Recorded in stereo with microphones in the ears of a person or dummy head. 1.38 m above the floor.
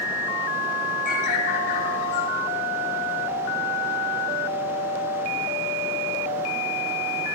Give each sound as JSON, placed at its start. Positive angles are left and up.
{"t": 1.1, "sound": "a bird", "side_deg": 50, "distance_m": 7.0}